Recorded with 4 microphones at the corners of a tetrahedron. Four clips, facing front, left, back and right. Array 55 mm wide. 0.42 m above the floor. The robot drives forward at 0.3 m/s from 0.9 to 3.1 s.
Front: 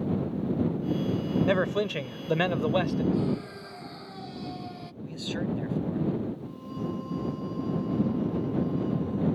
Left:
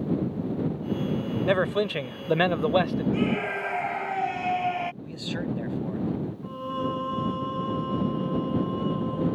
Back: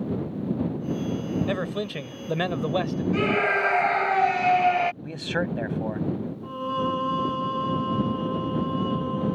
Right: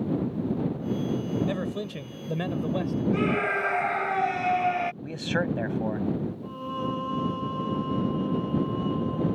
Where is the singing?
165° left.